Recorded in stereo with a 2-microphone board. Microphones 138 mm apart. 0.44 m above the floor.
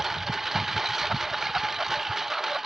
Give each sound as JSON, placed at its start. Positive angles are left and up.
{"t": 0.0, "sound": "a lawn mower", "side_deg": 0}